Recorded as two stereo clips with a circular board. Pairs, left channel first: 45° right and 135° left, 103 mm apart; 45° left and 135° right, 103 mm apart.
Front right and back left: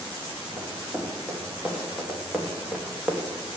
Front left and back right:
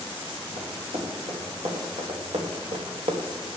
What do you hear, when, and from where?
0.6 s running footsteps: 145° right, 6 m